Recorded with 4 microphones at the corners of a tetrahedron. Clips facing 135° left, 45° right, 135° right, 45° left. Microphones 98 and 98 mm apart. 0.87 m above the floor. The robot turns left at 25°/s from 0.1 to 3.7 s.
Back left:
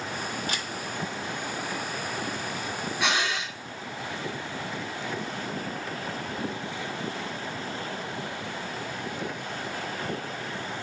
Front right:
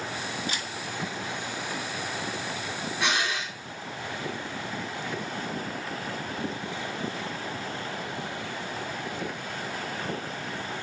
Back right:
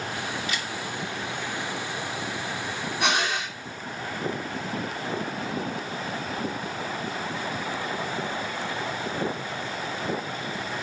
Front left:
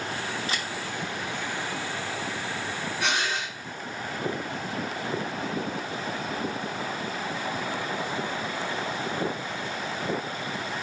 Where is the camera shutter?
100° left, 1.0 m; by 0.7 s 95° left, 1.0 m.